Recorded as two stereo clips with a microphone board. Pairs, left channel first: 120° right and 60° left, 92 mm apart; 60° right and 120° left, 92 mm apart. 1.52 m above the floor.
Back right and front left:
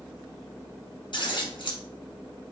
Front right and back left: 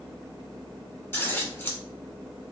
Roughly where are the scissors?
Behind right.